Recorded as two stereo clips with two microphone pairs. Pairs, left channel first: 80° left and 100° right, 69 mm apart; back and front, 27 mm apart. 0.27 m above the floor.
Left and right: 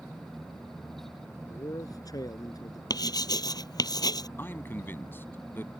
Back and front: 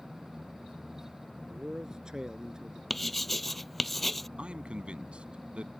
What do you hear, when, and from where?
1.5 s a man speaking: 65° left
2.9 s writing: 95° left
4.4 s a man speaking: 30° left